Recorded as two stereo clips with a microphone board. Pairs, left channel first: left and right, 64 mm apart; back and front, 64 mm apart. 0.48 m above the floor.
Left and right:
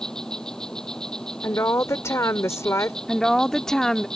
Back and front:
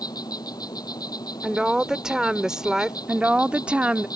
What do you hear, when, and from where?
0.0 s an insect: 170° left
1.4 s a woman speaking: 75° left
3.1 s a woman speaking: 25° left